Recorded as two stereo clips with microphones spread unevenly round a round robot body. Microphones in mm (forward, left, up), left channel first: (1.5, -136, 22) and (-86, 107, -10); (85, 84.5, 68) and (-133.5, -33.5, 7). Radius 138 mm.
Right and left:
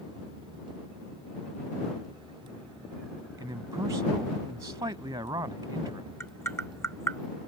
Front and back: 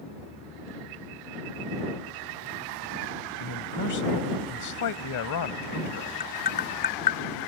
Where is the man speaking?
35° left.